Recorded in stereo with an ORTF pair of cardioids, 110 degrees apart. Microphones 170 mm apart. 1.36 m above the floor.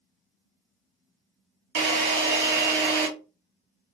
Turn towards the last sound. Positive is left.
turn(degrees=-70)